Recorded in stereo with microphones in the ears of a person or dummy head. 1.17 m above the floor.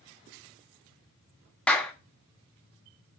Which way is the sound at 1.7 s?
5° left (ahead or behind).